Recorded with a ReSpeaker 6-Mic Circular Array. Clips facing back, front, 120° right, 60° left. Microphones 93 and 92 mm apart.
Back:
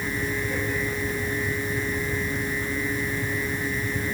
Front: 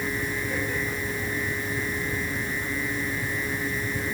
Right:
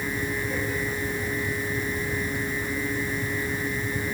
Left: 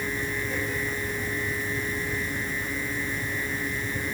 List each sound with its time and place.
Only background noise.